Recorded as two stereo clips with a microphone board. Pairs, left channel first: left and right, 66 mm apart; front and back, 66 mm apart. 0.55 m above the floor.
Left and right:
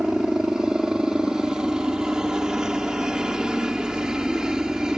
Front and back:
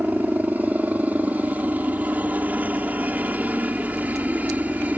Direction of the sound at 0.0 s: 160° right.